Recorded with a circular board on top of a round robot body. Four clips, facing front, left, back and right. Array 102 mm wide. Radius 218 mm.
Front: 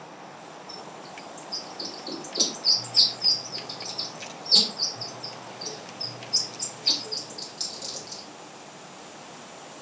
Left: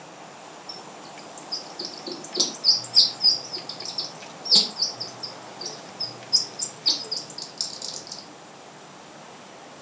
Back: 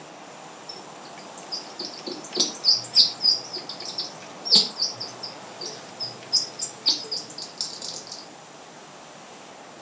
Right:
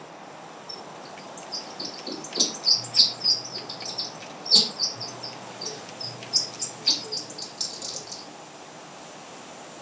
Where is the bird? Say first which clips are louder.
Right 1 dB, even; 160° left, 1.2 m.